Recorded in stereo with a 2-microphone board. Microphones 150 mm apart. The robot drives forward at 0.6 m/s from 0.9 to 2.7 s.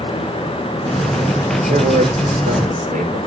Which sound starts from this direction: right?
A man speaking, at 1.7 s.